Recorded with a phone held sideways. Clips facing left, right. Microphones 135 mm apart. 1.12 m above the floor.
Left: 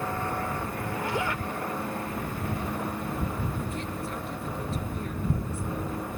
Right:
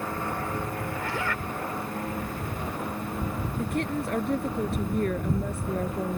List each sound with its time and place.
0.9 s a zipper: 20° left (ahead or behind)
3.6 s a woman speaking: 65° right (ahead or behind)